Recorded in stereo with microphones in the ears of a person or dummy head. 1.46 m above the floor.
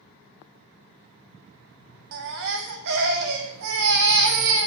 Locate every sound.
2.1 s a baby crying: 55° right (ahead or behind), 1.2 m